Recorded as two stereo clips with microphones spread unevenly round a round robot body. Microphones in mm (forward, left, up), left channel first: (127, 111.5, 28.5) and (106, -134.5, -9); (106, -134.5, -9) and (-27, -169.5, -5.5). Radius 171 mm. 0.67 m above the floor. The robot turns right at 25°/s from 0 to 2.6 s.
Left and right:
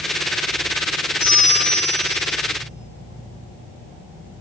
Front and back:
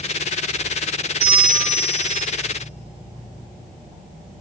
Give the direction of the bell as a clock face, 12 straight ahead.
7 o'clock.